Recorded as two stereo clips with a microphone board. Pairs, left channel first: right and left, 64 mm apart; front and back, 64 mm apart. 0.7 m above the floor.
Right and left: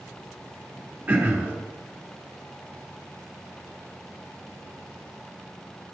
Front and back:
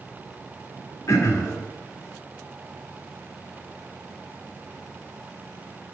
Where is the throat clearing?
25° left, 1.7 m.